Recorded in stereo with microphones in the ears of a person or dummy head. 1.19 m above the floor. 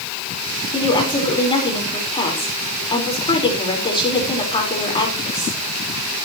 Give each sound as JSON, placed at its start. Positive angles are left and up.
{"t": 0.7, "sound": "a woman speaking", "side_deg": 20, "distance_m": 4.5}